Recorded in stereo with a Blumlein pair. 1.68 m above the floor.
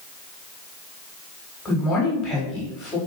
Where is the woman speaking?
20° left, 3.5 m.